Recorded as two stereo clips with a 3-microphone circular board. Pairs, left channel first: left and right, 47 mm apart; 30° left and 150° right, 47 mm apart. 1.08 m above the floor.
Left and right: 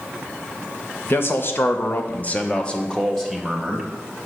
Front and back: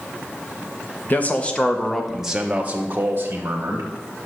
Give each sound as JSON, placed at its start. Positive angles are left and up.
{"t": 1.1, "sound": "a man speaking", "azimuth_deg": 70, "distance_m": 1.1}